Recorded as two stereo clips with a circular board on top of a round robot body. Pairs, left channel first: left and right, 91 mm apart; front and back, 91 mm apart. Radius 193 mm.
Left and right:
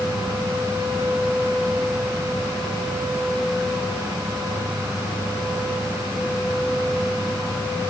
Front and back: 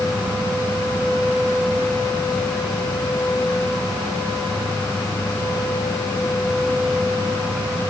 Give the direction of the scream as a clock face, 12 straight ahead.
No scream in this recording.